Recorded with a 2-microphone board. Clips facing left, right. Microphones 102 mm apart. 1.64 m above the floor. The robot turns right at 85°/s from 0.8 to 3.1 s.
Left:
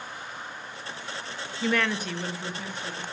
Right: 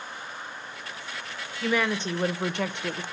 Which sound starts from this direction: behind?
A woman speaking, at 1.6 s.